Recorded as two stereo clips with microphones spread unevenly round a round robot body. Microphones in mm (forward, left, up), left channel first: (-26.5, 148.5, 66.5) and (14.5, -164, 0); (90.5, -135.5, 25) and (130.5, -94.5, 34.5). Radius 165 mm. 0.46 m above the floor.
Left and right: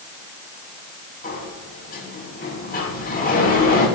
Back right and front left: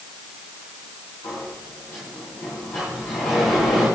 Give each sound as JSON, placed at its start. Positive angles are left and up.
{"t": 1.2, "sound": "a sliding door", "azimuth_deg": 165, "distance_m": 3.5}